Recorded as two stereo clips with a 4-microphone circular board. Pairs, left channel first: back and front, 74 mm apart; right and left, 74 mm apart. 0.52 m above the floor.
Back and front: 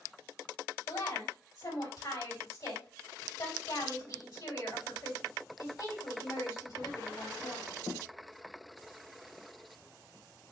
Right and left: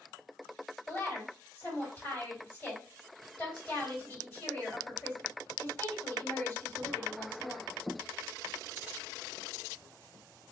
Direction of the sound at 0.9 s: 155° right.